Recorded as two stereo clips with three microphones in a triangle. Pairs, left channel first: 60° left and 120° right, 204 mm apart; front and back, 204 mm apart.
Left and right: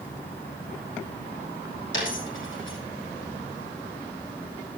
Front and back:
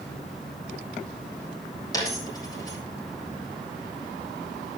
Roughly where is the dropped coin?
Left.